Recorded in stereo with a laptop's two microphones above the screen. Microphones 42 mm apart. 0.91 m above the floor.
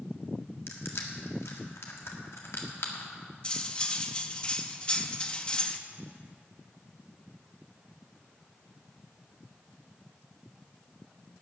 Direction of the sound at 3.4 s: 25° left (ahead or behind).